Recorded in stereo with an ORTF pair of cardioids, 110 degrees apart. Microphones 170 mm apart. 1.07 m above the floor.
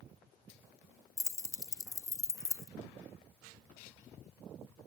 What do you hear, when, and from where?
1.2 s keys jangling: 20° left, 0.7 m